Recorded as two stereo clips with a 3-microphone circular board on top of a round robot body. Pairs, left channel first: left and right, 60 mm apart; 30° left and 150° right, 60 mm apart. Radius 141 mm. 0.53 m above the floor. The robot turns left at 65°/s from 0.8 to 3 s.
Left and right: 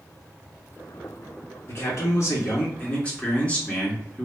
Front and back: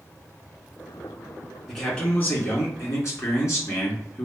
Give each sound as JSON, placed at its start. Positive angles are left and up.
{"t": 1.7, "sound": "a man speaking", "azimuth_deg": 115, "distance_m": 1.9}